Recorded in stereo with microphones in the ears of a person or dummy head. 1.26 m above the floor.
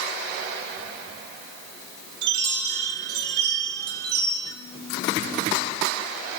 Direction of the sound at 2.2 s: 60° right (ahead or behind).